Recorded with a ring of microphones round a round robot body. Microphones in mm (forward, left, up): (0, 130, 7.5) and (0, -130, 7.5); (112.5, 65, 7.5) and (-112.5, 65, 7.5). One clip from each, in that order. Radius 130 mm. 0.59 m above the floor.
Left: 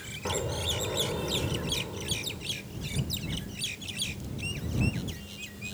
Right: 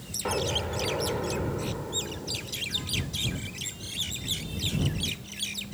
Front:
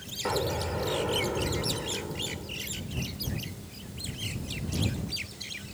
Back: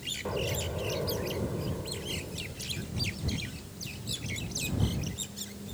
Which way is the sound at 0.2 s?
25° right.